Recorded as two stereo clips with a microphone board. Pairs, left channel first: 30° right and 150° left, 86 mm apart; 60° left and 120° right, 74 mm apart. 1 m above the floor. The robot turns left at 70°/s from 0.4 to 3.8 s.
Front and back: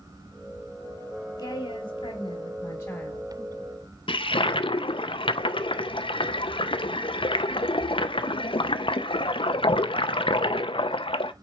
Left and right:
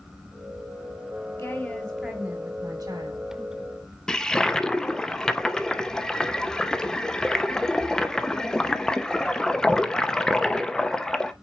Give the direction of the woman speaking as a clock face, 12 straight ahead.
12 o'clock.